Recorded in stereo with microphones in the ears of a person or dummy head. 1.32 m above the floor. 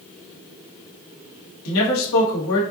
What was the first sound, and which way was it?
A man speaking, 85° left.